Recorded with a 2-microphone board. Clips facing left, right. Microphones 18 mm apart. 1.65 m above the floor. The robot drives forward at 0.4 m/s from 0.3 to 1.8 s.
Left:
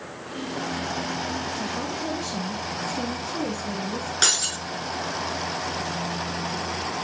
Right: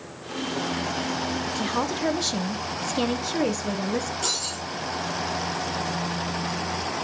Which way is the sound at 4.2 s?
70° left (ahead or behind).